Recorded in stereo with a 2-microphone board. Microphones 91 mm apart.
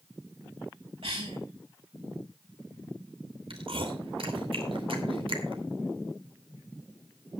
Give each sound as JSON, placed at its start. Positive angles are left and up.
{"t": 1.0, "sound": "a cough", "side_deg": -70, "distance_m": 2.0}
{"t": 3.5, "sound": "chewing", "side_deg": -70, "distance_m": 2.5}